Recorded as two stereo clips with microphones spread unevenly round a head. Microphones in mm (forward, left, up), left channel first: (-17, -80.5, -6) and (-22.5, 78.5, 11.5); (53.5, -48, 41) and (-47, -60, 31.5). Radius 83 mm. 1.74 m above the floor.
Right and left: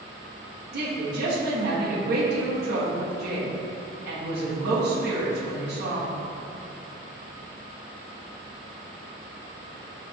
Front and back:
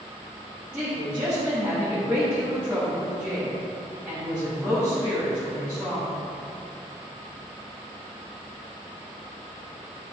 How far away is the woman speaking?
About 1.3 m.